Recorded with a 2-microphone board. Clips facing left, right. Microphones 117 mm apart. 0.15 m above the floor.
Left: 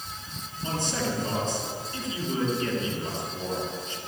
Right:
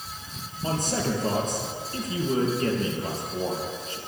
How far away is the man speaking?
About 4 m.